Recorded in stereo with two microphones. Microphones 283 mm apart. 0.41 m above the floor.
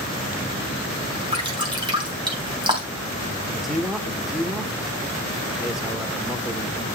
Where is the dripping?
15° right (ahead or behind), 3.5 m.